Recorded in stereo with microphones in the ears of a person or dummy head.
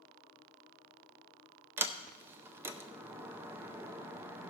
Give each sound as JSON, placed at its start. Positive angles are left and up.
{"t": 1.8, "sound": "a sliding door", "side_deg": -10, "distance_m": 0.6}